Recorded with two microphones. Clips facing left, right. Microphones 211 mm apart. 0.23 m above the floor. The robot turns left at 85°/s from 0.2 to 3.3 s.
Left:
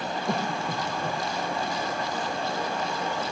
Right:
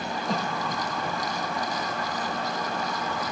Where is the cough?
65° left (ahead or behind), 2.5 m; by 1.2 s 10° left (ahead or behind), 2.5 m.